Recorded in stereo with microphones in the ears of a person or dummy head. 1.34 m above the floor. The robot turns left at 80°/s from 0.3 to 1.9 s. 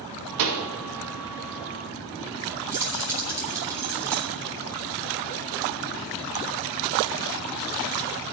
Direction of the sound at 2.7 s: 15° right (ahead or behind).